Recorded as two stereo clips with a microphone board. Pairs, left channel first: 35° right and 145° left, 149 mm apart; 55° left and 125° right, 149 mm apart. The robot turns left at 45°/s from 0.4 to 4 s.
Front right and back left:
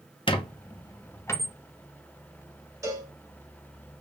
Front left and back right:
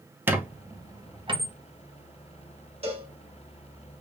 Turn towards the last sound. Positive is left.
turn(degrees=155)